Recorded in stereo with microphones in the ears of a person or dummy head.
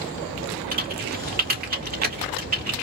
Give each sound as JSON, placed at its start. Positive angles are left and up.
{"t": 0.7, "sound": "typing on a keyboard", "side_deg": -45, "distance_m": 1.9}